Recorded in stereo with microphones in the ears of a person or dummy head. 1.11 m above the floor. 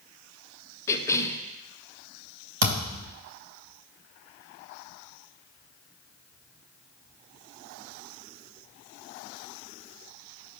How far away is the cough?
About 0.9 m.